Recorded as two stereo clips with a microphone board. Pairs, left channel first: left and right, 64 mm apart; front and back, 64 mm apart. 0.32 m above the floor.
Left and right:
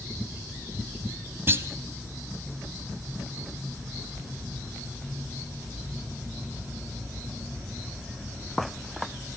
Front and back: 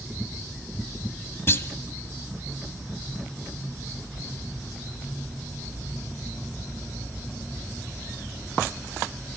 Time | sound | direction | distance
1.5 | a clunk | 45° right | 1.1 m